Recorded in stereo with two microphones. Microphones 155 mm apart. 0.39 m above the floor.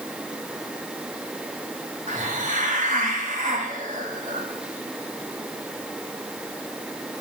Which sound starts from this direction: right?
A hiss, at 2.1 s.